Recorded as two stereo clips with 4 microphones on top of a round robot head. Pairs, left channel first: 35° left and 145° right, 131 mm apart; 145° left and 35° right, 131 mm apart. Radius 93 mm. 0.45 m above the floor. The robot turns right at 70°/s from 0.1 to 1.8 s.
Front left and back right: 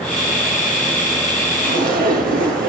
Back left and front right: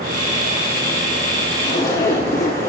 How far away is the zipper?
About 3.5 m.